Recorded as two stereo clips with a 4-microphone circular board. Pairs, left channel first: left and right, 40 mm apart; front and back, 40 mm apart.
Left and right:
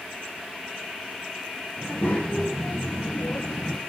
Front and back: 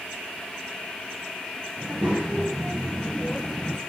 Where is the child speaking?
130° left, 1.6 m; by 3.8 s 55° left, 0.5 m.